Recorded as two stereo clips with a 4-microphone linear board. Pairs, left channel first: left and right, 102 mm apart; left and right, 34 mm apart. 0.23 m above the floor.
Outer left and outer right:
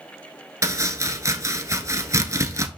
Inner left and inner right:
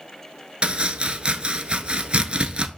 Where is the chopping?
35° right (ahead or behind), 0.9 m.